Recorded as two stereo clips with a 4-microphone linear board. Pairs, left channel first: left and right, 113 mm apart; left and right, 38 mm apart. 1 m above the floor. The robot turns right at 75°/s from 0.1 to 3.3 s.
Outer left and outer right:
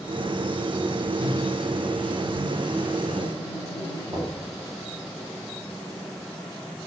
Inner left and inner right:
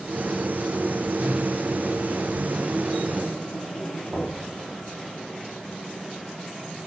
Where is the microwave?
135° right, 1.3 m; by 4.2 s 20° left, 1.3 m.